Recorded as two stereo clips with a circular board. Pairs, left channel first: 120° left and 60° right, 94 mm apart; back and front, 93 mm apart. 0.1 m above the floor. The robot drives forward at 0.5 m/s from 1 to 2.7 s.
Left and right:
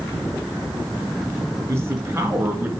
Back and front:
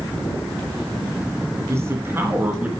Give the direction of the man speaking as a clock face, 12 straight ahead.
1 o'clock.